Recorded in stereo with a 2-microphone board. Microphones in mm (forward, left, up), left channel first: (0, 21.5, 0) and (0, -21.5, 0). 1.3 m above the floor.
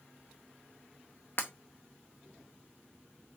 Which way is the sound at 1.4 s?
50° left (ahead or behind).